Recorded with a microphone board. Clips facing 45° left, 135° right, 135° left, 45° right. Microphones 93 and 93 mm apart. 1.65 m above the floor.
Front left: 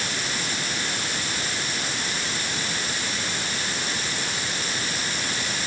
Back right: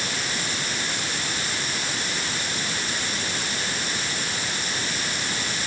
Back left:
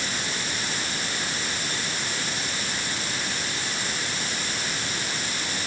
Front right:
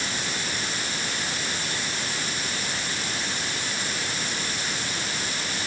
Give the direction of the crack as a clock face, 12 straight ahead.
I don't hear a crack.